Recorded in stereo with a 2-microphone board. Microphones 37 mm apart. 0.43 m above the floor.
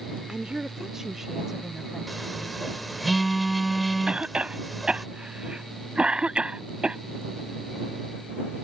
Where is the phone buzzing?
Centre (ahead or behind).